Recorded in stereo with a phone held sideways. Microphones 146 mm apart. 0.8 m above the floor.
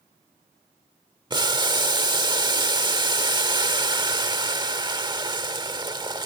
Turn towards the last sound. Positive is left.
turn(degrees=-30)  # may be behind; listen again after turning